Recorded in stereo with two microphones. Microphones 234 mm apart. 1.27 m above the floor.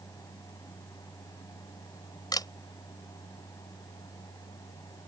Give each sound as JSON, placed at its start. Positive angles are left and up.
{"t": 2.3, "sound": "a camera shutter", "side_deg": 15}